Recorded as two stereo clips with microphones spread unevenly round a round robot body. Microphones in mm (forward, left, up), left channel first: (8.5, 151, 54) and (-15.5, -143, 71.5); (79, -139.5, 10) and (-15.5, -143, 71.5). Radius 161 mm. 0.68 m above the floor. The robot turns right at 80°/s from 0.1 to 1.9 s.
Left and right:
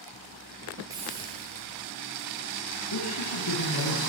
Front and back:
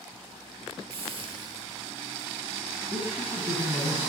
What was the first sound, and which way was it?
A hiss, 175° right.